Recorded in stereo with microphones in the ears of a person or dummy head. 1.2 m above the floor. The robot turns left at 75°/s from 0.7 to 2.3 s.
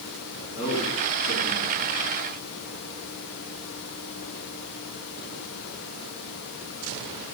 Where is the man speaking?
35° left (ahead or behind), 9 m; by 1.9 s 50° left (ahead or behind), 9 m.